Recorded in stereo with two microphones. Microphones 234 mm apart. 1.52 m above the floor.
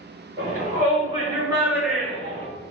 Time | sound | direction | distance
0.4 | a shout | 40° right (ahead or behind) | 1.3 m